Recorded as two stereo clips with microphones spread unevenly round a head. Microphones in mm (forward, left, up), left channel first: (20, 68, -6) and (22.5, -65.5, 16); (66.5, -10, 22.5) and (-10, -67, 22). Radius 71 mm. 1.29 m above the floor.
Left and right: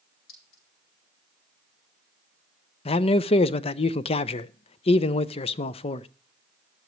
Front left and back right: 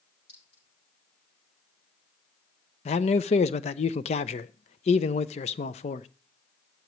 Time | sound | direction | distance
0.3 | a clink | 85° left | 8.5 m
2.9 | a man speaking | 40° left | 0.6 m